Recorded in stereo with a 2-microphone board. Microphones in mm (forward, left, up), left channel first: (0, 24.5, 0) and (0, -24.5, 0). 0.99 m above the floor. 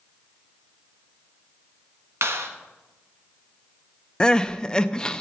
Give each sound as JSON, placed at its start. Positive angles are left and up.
{"t": 2.2, "sound": "a clap", "side_deg": -60, "distance_m": 1.4}
{"t": 4.2, "sound": "crying", "side_deg": 15, "distance_m": 0.6}